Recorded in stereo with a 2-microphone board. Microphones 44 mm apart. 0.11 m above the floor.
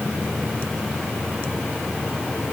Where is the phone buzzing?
I don't hear a phone buzzing.